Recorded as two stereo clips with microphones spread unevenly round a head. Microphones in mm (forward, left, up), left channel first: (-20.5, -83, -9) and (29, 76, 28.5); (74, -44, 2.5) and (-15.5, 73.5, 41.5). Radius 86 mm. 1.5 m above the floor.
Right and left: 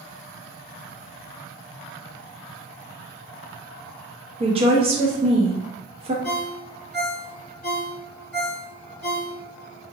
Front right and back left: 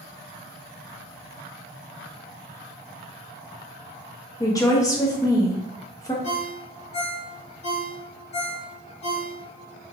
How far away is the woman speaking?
About 0.8 m.